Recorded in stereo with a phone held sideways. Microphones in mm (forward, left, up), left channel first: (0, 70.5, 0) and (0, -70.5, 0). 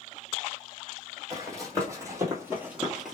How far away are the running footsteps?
About 2 m.